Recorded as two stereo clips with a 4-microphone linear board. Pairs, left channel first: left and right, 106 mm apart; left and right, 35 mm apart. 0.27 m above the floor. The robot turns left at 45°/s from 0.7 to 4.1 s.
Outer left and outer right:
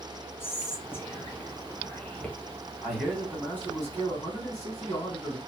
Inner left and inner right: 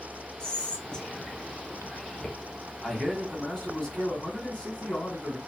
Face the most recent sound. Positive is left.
turn(degrees=130)